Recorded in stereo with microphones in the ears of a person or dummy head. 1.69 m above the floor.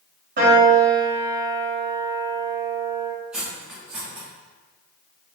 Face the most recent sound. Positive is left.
turn(degrees=-10)  # may be behind; listen again after turning